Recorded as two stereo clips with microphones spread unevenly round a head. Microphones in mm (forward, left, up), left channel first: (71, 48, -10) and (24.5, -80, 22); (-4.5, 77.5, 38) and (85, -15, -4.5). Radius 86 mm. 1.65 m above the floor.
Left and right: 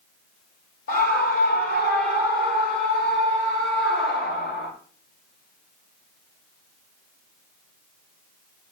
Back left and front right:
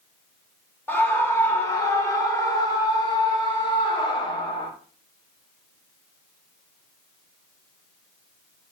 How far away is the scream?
About 3.5 m.